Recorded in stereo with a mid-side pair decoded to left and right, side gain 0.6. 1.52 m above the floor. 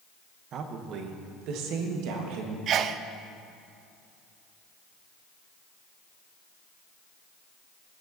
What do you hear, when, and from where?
0.5 s a woman speaking: 55° right, 1.3 m; by 2.6 s 75° right, 2 m
2.7 s a sneeze: 55° right, 0.7 m